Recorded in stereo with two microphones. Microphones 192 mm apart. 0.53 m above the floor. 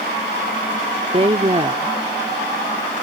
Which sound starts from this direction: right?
A woman speaking, at 1.1 s.